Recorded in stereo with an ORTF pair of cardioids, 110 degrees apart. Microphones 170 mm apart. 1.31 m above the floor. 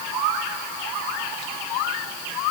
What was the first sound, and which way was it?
Only background noise.